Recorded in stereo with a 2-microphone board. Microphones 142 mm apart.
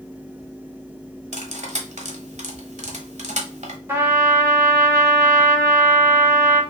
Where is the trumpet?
15° right (ahead or behind), 1.2 m.